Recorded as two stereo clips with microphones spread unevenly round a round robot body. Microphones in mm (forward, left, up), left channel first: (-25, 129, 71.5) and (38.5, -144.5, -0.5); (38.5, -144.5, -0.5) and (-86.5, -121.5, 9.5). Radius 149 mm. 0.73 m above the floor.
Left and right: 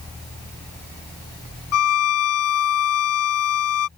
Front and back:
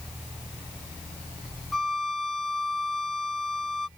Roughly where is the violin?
Left.